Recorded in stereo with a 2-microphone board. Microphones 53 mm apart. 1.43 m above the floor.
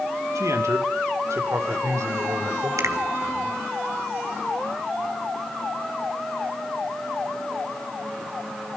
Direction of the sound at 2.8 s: 85° right.